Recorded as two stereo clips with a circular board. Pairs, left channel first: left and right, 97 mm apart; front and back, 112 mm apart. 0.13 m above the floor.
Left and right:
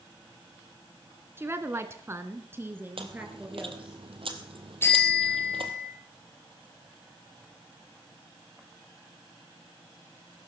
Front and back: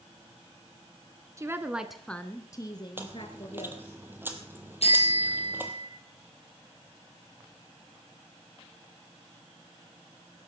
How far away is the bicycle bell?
About 3 m.